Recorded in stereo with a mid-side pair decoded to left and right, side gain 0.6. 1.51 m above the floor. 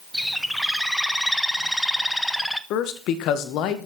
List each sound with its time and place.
0.1 s a bird: straight ahead, 0.8 m
2.7 s a man speaking: 65° left, 1.8 m